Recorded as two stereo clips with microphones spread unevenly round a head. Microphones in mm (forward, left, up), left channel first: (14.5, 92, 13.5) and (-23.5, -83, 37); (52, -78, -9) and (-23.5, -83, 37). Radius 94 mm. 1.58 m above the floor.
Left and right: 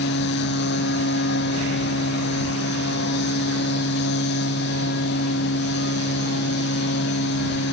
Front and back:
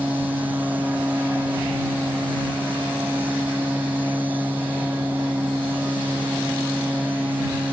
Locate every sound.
0.0 s a machine running: 110° left